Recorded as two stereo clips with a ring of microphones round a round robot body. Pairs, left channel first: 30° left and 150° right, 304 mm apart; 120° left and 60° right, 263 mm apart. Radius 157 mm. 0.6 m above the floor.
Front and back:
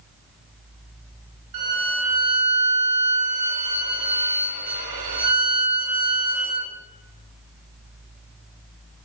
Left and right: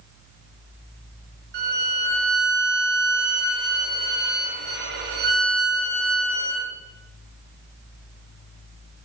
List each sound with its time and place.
1.5 s a violin: 120° right, 5 m